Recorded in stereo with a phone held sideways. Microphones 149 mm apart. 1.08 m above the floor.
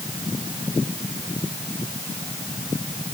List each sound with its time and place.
Only background noise.